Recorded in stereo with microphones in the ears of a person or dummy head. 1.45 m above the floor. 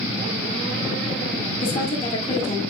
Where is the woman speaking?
35° left (ahead or behind), 2 m.